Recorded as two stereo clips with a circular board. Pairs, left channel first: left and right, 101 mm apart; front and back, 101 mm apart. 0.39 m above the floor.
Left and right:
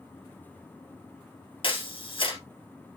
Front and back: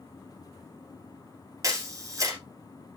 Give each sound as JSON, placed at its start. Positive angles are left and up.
{"t": 1.6, "sound": "a camera shutter", "azimuth_deg": 125, "distance_m": 2.5}